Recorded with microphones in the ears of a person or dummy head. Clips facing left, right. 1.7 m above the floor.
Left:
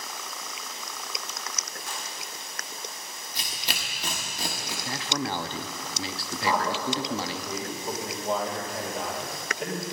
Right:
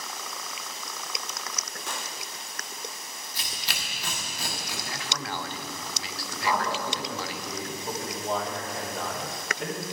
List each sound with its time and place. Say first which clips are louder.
1.9 s a gunshot: right 4 dB; 50° right (ahead or behind), 0.5 m
3.4 s tearing paper: left 3 dB; 15° left (ahead or behind), 1.1 m
4.8 s a man speaking: left 7 dB; 30° left (ahead or behind), 0.6 m
6.4 s a man speaking: left 1 dB; centre (ahead or behind), 2.5 m